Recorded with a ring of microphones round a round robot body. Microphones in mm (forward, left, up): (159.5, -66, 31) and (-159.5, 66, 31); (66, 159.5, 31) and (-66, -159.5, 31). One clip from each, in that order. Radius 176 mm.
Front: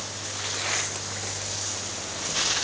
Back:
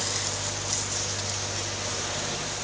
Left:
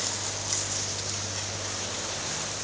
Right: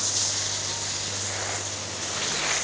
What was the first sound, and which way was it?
Only background noise.